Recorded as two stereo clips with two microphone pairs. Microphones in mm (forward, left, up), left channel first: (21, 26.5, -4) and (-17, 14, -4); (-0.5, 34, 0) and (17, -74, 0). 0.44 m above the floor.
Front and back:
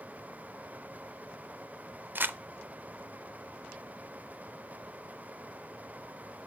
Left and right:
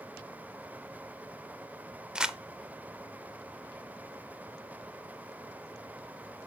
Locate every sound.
2.1 s crumpling: 160° right, 0.5 m